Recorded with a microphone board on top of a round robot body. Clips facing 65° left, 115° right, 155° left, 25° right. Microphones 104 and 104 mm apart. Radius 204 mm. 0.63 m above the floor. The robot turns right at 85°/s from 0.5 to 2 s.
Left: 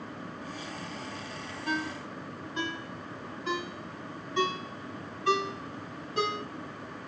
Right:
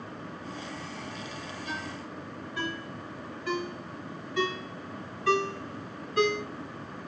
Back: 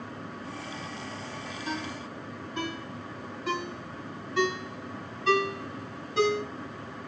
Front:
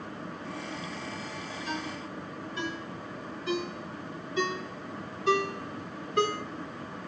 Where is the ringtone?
105° left, 3 m; by 6.4 s 135° left, 3 m.